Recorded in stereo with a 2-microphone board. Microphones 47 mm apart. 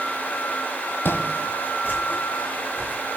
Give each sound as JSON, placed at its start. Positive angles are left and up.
{"t": 1.1, "sound": "footsteps", "side_deg": 50, "distance_m": 1.8}